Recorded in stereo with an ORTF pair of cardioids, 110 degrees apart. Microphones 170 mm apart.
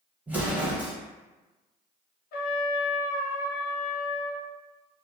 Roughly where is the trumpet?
Ahead left.